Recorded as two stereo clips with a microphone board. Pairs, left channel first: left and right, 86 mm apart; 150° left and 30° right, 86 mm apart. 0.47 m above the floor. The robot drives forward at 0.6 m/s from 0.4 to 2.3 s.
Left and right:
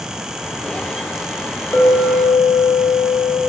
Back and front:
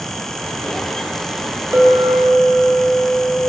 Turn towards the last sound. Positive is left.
turn(degrees=45)